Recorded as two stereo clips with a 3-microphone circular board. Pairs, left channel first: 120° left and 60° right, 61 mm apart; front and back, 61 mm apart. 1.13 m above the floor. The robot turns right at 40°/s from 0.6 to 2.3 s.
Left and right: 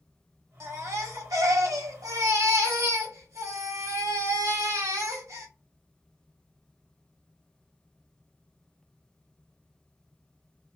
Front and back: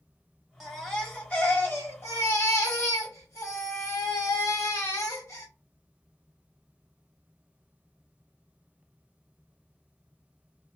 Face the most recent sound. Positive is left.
turn(degrees=-25)